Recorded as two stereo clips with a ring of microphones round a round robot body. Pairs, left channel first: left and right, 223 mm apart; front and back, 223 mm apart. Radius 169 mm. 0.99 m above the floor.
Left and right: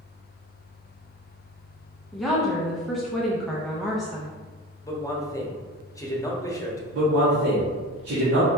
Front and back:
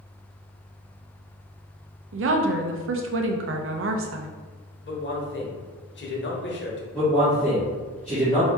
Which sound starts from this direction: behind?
A woman speaking, at 2.1 s.